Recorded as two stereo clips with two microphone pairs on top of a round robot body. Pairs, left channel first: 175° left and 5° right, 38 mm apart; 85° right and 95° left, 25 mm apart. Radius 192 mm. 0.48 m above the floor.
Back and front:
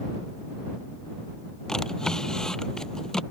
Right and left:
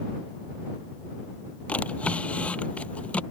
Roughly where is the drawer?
Right.